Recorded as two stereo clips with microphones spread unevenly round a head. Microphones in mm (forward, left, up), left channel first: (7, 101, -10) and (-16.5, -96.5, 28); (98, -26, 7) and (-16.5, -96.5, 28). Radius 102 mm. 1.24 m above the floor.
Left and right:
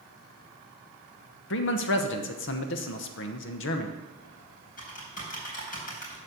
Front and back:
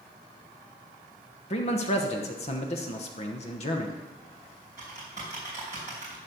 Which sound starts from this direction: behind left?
Typing on a keyboard, at 4.2 s.